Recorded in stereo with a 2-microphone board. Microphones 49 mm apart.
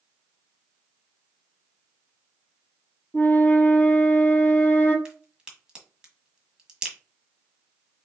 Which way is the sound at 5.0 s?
15° right (ahead or behind).